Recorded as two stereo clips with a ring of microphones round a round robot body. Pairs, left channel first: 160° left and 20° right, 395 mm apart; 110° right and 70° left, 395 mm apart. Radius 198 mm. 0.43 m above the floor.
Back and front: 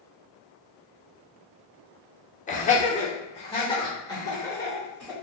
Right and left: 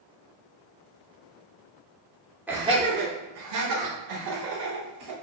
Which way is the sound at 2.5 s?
145° left.